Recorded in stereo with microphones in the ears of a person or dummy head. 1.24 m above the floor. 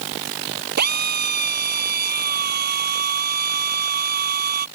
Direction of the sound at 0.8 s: 50° right (ahead or behind).